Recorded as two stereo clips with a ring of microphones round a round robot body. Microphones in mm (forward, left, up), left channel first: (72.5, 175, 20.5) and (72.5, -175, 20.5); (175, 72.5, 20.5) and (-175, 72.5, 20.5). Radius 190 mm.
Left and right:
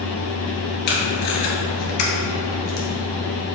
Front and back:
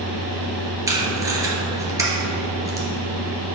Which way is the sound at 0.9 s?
100° left.